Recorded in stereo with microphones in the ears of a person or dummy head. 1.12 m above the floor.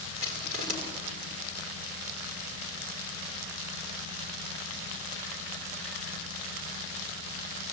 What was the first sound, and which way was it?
Crushing, 40° right (ahead or behind).